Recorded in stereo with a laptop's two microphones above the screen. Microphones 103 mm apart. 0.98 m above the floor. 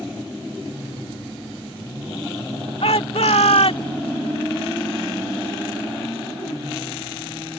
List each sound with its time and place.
2.8 s a shout: 75° left (ahead or behind)